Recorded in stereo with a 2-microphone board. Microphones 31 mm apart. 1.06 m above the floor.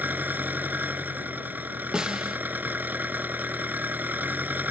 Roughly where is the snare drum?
Right.